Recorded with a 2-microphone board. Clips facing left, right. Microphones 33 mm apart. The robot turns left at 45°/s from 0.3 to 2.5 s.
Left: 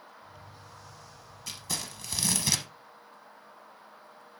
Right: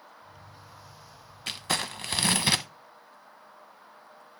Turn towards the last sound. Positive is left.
turn(degrees=-125)